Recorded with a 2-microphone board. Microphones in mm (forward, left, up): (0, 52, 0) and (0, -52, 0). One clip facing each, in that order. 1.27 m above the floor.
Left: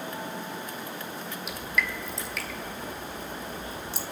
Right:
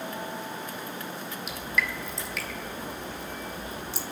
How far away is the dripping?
About 1.7 m.